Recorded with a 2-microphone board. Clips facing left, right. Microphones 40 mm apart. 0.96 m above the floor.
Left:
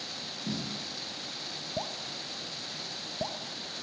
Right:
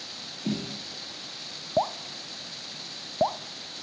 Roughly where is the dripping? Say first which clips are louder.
Right 11 dB; right.